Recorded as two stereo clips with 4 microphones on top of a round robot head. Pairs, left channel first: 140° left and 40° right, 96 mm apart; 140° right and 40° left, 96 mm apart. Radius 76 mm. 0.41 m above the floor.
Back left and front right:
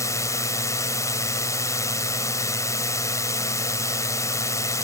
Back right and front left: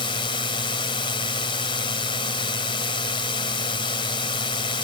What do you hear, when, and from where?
0.0 s a drone: 165° right